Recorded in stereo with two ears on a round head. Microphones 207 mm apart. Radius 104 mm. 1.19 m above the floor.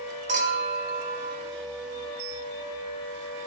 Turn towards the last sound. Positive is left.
turn(degrees=-35)  # may be behind; listen again after turning